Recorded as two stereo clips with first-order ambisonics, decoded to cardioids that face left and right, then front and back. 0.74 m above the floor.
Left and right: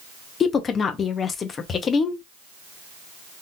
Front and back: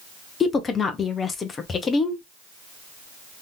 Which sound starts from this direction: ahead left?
A woman speaking, at 0.4 s.